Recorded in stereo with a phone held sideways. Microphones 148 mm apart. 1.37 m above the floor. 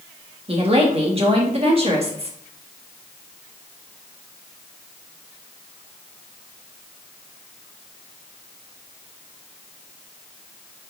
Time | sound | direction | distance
0.5 | a woman speaking | 40° right (ahead or behind) | 1.8 m